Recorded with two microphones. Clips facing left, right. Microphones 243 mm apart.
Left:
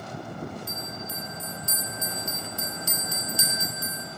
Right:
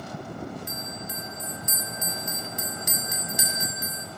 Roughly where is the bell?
Centre.